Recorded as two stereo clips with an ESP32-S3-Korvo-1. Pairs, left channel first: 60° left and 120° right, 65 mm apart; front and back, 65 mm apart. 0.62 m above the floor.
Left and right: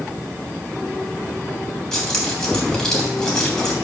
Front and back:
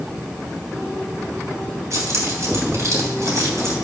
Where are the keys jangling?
135° left, 3 m.